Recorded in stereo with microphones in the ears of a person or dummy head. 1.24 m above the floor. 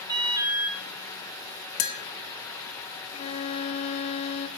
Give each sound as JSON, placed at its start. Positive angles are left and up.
{"t": 0.1, "sound": "an alarm", "side_deg": -20, "distance_m": 1.5}
{"t": 1.8, "sound": "tapping", "side_deg": 45, "distance_m": 1.5}
{"t": 3.1, "sound": "a violin", "side_deg": 40, "distance_m": 0.8}